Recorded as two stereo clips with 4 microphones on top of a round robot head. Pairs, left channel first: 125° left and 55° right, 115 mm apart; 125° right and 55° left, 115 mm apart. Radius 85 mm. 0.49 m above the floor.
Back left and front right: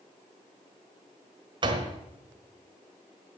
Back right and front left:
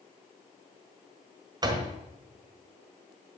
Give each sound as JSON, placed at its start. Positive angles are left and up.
{"t": 1.6, "sound": "a door slam", "azimuth_deg": -5, "distance_m": 1.5}